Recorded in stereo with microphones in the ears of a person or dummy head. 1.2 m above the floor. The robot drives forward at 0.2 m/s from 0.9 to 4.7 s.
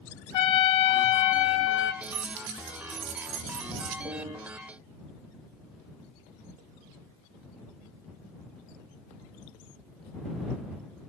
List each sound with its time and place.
0.3 s a trumpet: 30° left (ahead or behind), 0.6 m
2.0 s keys jangling: 65° right (ahead or behind), 1.0 m
4.0 s a piano: 20° right (ahead or behind), 0.7 m